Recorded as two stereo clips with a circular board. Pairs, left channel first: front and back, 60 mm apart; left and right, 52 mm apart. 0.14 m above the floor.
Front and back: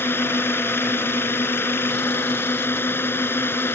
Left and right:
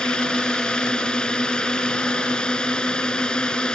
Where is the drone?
25° left.